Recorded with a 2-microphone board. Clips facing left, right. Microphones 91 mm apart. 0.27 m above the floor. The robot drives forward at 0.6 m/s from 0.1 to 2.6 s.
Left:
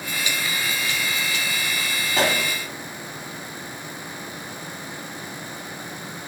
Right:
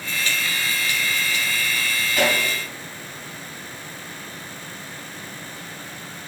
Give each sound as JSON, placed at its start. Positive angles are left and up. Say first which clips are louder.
{"t": 2.1, "sound": "a pop", "louder": "right 1 dB", "side_deg": 35, "distance_m": 1.3}